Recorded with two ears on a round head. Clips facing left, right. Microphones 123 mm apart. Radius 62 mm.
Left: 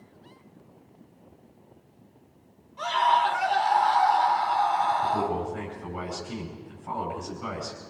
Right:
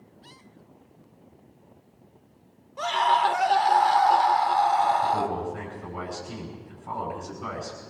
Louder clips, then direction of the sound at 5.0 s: Right 1 dB; centre (ahead or behind).